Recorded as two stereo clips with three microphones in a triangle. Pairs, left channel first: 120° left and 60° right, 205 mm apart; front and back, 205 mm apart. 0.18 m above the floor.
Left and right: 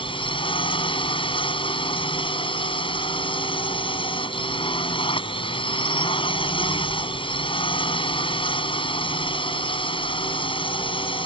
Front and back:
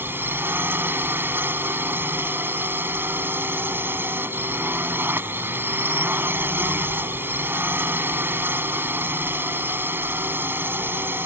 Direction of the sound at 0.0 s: 115° left.